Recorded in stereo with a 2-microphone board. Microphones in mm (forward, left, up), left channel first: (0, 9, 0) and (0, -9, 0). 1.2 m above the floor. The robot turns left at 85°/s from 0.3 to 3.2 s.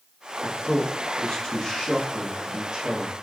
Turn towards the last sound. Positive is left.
turn(degrees=-105)